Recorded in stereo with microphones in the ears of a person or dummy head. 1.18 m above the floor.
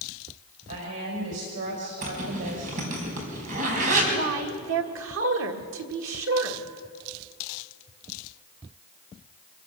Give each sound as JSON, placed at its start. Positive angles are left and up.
{"t": 0.7, "sound": "a woman speaking", "side_deg": -70, "distance_m": 4.5}
{"t": 2.0, "sound": "a zipper", "side_deg": -40, "distance_m": 5.0}
{"t": 4.1, "sound": "a woman speaking", "side_deg": -65, "distance_m": 1.7}